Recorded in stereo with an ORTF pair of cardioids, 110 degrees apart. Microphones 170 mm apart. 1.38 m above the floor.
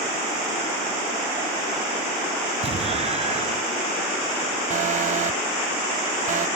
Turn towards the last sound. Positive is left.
turn(degrees=-45)